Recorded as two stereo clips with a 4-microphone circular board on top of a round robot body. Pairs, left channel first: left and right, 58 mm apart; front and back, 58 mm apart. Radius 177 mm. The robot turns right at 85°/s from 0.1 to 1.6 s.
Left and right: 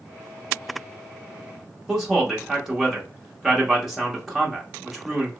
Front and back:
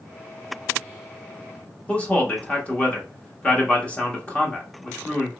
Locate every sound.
1.9 s a man speaking: 10° right, 1.2 m